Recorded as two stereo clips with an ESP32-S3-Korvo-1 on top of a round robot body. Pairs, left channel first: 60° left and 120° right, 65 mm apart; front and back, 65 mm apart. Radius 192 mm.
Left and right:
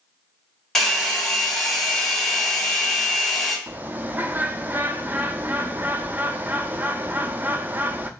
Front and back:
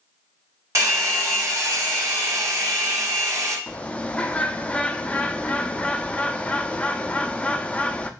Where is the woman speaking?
No woman speaking in this recording.